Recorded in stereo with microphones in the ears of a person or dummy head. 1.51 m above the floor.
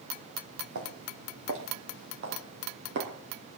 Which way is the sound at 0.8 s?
70° right (ahead or behind).